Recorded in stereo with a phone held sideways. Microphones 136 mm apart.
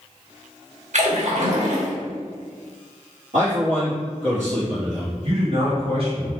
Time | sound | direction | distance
0.9 | a splash | 65° right (ahead or behind) | 1.0 m
3.3 | a man speaking | 65° right (ahead or behind) | 1.8 m
5.2 | a man speaking | 45° right (ahead or behind) | 1.8 m